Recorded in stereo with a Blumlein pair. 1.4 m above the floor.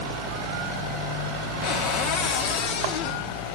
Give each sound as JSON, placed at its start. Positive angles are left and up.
{"t": 1.6, "sound": "a cupboard door", "azimuth_deg": 45, "distance_m": 1.5}